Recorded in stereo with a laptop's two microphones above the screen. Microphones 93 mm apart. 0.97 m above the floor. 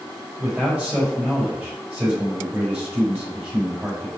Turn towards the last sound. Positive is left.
turn(degrees=-15)  # may be behind; listen again after turning